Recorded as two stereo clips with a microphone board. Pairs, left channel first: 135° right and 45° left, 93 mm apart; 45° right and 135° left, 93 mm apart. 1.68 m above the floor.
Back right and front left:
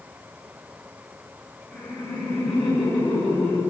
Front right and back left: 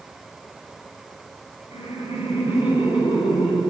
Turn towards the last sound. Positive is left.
turn(degrees=-60)